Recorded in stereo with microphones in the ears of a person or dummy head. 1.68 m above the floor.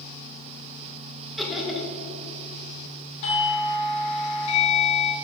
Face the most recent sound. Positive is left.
turn(degrees=35)  # may be behind; listen again after turning